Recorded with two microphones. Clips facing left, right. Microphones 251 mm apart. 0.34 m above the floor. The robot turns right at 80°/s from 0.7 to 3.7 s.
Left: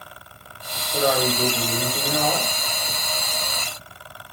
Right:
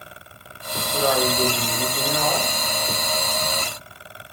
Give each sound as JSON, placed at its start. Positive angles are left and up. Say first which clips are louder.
{"t": 0.9, "sound": "a man speaking", "louder": "even", "azimuth_deg": 20, "distance_m": 1.0}